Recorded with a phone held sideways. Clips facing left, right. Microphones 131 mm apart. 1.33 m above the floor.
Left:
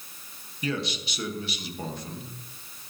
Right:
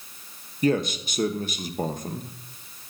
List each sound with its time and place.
0.6 s a man speaking: 45° right (ahead or behind), 0.9 m